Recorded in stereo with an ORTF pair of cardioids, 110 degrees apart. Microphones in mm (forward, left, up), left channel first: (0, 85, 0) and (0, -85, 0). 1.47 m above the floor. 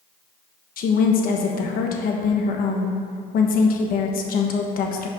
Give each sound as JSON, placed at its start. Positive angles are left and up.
{"t": 0.8, "sound": "a woman speaking", "azimuth_deg": 60, "distance_m": 1.3}